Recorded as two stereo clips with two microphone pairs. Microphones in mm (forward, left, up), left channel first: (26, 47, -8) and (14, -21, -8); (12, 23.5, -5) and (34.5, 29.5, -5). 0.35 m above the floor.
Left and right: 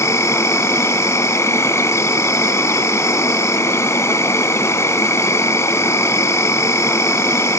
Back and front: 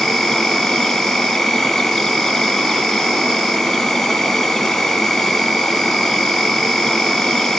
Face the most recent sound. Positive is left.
turn(degrees=125)